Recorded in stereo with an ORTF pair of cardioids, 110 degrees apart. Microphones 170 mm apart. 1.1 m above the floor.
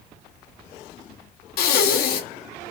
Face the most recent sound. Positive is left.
turn(degrees=65)